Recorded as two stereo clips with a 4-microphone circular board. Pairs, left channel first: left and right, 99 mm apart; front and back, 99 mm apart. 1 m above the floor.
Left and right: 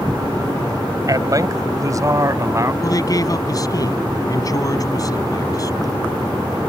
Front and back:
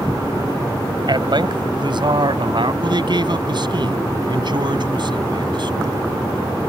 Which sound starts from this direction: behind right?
A man speaking, at 1.1 s.